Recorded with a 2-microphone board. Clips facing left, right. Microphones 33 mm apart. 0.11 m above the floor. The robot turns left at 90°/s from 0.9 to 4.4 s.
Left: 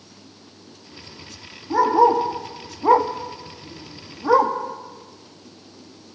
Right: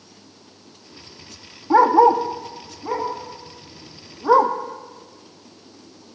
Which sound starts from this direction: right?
A dog barking, at 1.7 s.